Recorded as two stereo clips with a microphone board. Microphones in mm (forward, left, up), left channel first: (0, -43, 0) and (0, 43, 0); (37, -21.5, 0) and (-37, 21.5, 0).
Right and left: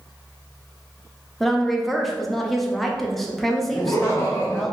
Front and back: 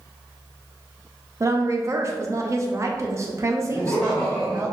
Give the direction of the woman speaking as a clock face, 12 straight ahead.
6 o'clock.